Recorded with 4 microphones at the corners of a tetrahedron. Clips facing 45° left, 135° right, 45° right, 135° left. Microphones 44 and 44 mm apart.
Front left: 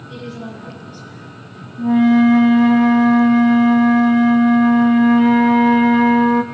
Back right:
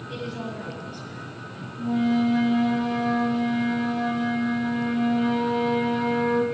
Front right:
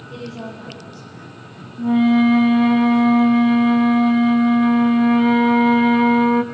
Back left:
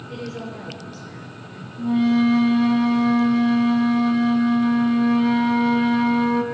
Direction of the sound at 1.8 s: 15° left.